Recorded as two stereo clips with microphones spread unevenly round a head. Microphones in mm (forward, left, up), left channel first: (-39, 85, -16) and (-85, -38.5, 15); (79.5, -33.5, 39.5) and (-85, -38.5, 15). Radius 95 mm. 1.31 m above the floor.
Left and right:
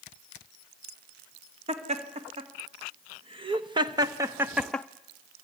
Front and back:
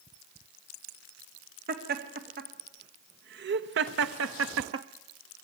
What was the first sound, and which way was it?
Laughter, 150° right.